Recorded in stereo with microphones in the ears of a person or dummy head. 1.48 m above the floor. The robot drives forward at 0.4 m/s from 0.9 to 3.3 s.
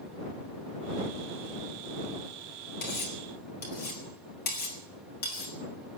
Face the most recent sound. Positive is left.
turn(degrees=50)  # may be behind; listen again after turning